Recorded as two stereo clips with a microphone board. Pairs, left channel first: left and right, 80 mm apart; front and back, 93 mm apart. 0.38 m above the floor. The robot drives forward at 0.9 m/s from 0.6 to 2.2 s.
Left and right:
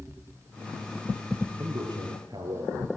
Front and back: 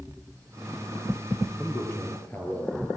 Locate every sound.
1.6 s a man speaking: 65° right, 8.5 m; by 2.9 s 70° right, 8 m